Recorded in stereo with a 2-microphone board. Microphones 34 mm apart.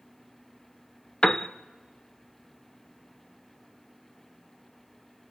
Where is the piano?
25° left (ahead or behind), 0.6 m.